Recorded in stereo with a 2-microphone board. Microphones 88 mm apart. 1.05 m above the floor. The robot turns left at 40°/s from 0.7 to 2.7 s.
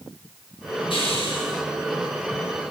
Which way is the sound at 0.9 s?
80° left.